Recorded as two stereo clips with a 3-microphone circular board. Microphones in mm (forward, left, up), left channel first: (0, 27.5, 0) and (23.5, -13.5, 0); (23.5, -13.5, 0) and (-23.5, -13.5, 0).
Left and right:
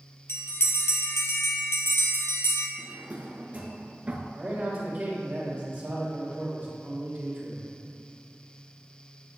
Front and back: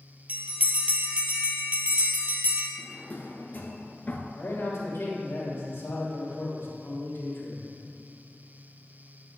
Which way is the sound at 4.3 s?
20° right.